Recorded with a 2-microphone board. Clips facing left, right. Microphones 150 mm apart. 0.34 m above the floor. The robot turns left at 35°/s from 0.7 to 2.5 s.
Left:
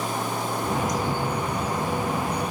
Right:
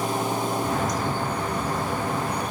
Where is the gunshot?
No gunshot in this recording.